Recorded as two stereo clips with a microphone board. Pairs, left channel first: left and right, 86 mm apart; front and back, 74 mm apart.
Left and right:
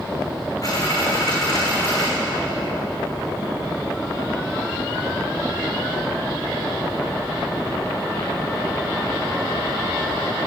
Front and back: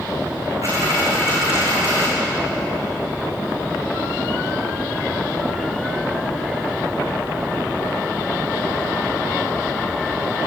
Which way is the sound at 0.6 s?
140° left.